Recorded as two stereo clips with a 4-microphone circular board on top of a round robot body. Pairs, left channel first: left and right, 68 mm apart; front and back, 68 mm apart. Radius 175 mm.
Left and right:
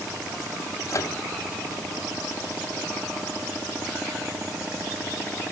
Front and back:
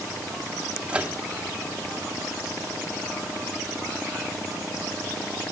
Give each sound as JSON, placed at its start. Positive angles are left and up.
{"t": 0.9, "sound": "a microwave", "azimuth_deg": 110, "distance_m": 1.3}